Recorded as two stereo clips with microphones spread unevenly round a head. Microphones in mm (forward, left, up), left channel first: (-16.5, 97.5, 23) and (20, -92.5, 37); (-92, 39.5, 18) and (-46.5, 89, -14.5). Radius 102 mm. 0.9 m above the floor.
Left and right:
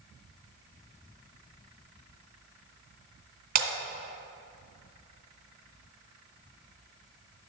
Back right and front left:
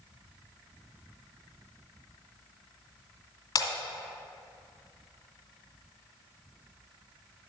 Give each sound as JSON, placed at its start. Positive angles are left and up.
{"t": 3.5, "sound": "breaking glass", "azimuth_deg": -125, "distance_m": 2.0}